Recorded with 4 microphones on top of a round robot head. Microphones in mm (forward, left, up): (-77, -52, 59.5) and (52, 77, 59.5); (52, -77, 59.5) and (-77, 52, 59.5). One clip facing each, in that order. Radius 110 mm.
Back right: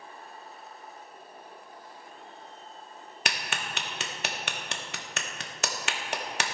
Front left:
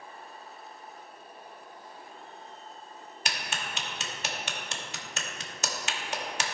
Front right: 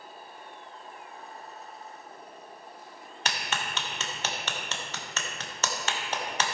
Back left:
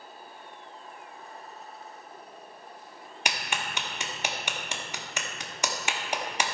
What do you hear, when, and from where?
3.2 s a clap: 150° right, 0.9 m